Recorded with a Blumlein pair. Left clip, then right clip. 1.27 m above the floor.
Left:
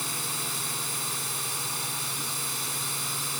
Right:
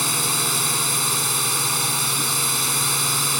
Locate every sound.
0.0 s a drone: 65° right